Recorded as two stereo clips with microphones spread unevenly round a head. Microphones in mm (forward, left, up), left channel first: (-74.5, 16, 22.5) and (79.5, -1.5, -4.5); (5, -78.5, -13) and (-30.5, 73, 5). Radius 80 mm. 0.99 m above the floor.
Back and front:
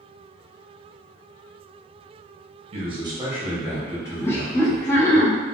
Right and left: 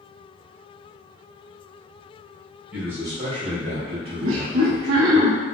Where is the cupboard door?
No cupboard door in this recording.